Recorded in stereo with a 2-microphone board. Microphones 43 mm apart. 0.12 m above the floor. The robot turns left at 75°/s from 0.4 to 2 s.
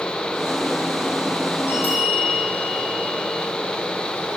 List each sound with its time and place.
1.7 s a bell: 65° left (ahead or behind), 3.5 m; by 3.5 s 45° left (ahead or behind), 3.5 m